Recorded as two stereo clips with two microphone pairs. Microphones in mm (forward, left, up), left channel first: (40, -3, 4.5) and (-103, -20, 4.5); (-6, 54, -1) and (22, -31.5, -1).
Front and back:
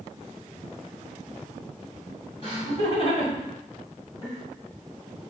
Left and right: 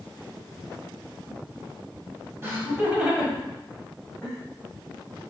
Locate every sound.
2.4 s laughter: 20° right, 1.8 m; by 4.4 s 60° left, 1.5 m